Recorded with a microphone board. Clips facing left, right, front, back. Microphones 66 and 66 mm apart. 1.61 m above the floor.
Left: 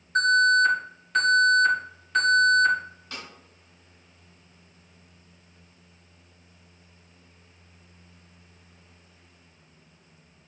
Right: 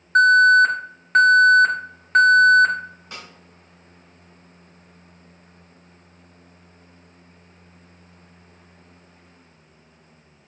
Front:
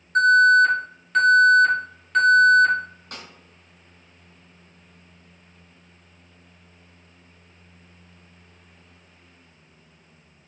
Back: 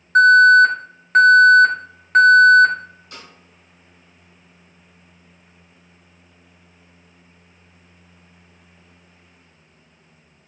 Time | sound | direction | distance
0.1 | an alarm | 130° right | 1.7 m
3.1 | a snare drum | 20° right | 2.5 m